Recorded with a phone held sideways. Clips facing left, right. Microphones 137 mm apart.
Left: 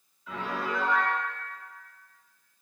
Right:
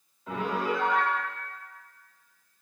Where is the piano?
50° right (ahead or behind), 1.7 m.